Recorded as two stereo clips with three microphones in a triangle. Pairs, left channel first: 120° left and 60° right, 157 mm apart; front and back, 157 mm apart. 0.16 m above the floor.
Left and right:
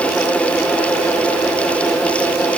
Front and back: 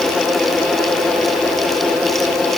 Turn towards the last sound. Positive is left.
No sound to turn to.